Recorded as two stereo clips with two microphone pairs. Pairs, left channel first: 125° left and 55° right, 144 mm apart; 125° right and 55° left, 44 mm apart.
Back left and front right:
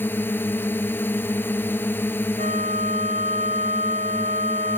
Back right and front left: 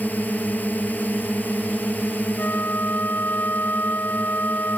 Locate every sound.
0.0 s a drone: 160° right
2.4 s a flute: 85° right